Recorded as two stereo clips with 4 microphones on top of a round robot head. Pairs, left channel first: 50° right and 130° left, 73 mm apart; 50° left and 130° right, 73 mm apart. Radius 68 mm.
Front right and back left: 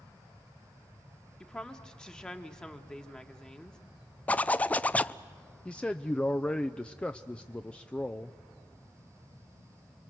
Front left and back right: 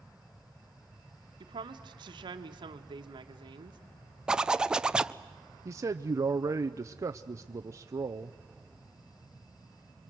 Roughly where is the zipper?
Right.